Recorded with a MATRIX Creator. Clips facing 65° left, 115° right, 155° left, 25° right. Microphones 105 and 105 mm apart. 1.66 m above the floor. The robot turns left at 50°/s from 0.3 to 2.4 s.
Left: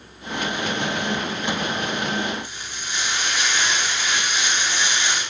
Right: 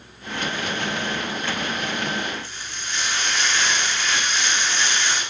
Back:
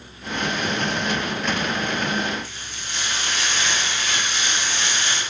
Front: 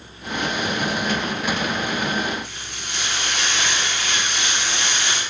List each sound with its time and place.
2.4 s frying: 5° right, 5 m